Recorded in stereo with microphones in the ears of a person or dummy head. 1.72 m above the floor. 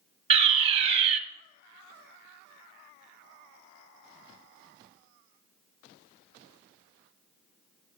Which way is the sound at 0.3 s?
30° right (ahead or behind).